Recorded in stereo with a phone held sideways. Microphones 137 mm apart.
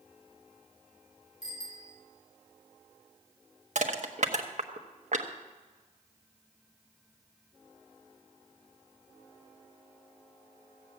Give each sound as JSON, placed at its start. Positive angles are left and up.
{"t": 1.4, "sound": "a bicycle bell", "side_deg": 70, "distance_m": 2.5}
{"t": 3.8, "sound": "crushing", "side_deg": -60, "distance_m": 1.1}